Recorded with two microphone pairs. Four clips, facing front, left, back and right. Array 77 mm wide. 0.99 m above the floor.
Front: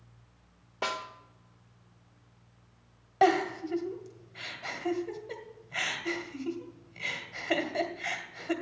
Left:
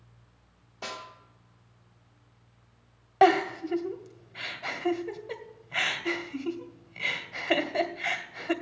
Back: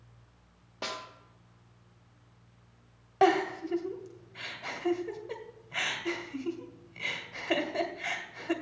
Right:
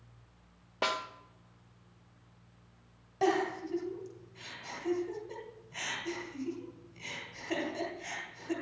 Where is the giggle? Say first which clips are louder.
Left 8 dB, even; 105° left, 1.6 m.